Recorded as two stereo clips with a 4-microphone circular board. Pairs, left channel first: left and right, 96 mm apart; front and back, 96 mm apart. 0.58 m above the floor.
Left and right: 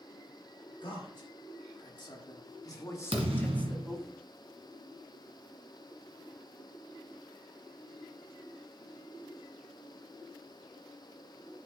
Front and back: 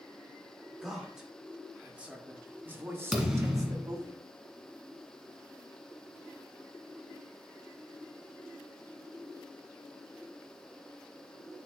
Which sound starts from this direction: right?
A thud, at 3.1 s.